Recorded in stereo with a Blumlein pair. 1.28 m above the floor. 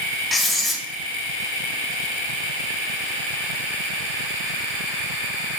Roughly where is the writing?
Ahead.